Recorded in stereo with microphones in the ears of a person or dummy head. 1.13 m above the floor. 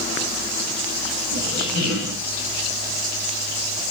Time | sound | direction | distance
1.3 | a squeak | 65° left (ahead or behind) | 3 m